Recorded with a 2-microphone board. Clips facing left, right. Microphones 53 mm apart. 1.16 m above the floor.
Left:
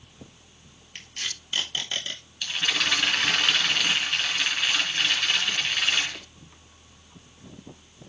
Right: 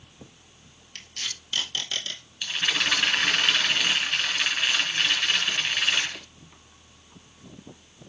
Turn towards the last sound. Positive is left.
turn(degrees=-5)  # may be behind; listen again after turning